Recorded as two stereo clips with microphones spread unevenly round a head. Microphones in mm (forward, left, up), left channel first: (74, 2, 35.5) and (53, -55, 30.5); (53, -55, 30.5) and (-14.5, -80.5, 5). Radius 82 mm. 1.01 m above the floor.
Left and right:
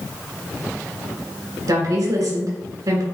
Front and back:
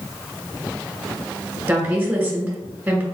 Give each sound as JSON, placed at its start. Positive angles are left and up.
{"t": 1.7, "sound": "a woman speaking", "azimuth_deg": -105, "distance_m": 1.8}